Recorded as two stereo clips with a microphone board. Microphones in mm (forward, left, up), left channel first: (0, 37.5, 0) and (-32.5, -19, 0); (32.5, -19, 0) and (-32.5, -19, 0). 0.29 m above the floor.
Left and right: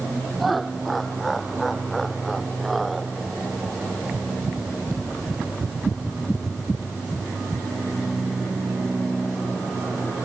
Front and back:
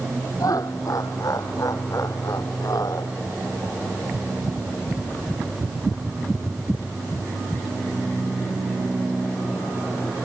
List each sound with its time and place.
0.4 s laughter: 30° right